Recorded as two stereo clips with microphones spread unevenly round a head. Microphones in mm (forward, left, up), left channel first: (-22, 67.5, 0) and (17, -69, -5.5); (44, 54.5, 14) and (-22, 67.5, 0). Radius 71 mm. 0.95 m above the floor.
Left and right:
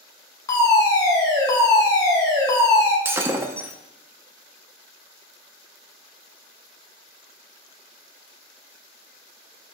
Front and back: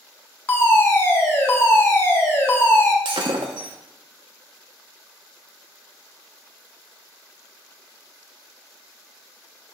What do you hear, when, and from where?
0.5 s a fire alarm: 45° left, 1.7 m
3.0 s breaking glass: 150° right, 0.6 m